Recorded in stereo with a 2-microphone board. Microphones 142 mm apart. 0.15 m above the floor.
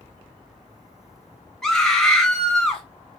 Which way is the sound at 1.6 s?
5° left (ahead or behind).